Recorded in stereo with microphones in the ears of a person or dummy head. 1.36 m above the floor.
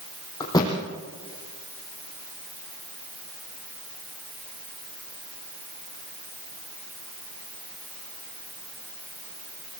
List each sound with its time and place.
0.4 s a thud: 20° left (ahead or behind), 4 m